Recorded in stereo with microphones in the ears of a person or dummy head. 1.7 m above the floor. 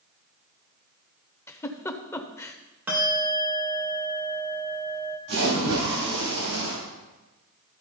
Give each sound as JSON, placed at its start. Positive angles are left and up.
{"t": 1.5, "sound": "a giggle", "side_deg": 15, "distance_m": 0.7}
{"t": 2.9, "sound": "a bell", "side_deg": -10, "distance_m": 2.0}
{"t": 5.3, "sound": "a splash", "side_deg": -75, "distance_m": 4.5}